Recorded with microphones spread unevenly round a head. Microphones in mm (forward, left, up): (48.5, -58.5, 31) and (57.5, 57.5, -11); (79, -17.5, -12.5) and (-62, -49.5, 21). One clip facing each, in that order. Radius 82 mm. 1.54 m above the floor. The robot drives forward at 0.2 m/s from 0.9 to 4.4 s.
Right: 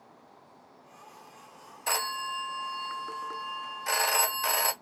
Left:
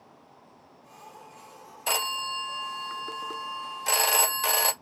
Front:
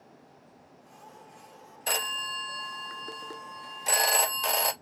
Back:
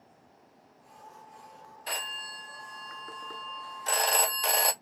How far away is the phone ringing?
About 0.6 m.